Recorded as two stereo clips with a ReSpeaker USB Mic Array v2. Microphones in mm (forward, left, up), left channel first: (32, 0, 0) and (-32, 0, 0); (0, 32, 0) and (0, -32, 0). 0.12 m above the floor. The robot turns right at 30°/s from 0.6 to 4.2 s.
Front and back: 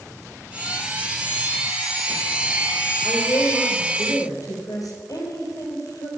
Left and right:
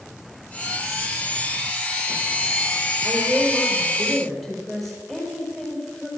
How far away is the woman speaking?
About 3.5 m.